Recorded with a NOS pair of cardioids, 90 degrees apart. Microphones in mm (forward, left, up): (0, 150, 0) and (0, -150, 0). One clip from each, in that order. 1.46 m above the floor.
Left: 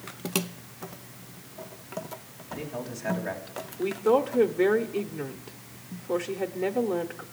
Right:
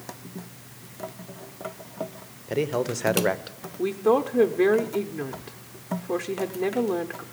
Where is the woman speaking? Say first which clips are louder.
Right 1 dB; 5° right, 0.6 m.